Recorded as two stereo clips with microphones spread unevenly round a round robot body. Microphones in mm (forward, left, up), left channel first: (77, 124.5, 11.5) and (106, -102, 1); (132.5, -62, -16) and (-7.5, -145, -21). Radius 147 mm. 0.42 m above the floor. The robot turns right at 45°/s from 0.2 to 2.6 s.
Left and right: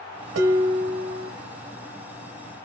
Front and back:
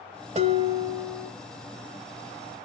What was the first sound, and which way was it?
Dishes clattering, 100° right.